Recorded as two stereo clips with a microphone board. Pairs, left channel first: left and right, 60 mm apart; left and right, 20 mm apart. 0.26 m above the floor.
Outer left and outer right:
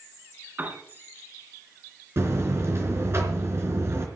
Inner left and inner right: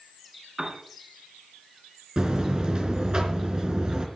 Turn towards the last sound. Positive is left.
turn(degrees=-45)  # may be behind; listen again after turning